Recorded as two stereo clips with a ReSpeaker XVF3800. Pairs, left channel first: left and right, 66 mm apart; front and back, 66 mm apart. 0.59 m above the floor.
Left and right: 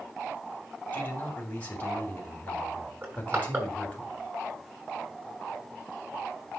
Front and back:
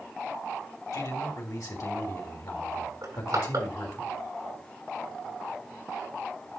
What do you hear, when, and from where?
0.9 s a man speaking: 20° left, 3 m
3.0 s crushing: 145° right, 7 m